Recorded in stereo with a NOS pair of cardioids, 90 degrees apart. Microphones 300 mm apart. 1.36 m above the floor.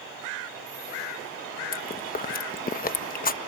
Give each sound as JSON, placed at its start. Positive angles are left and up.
{"t": 1.7, "sound": "chewing", "azimuth_deg": 30}